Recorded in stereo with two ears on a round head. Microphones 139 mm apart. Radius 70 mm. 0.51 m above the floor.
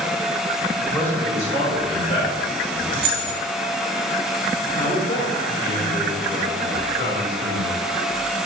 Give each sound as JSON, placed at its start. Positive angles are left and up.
{"t": 0.8, "sound": "a man speaking", "side_deg": 5, "distance_m": 1.5}
{"t": 2.9, "sound": "keys jangling", "side_deg": -65, "distance_m": 1.7}
{"t": 4.8, "sound": "a man speaking", "side_deg": 55, "distance_m": 1.9}